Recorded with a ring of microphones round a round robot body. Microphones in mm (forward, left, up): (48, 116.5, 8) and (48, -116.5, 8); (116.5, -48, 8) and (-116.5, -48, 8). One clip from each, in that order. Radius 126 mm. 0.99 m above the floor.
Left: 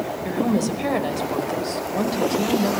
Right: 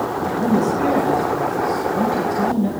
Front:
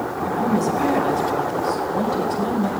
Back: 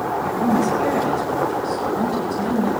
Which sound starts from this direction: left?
A woman speaking, at 0.2 s.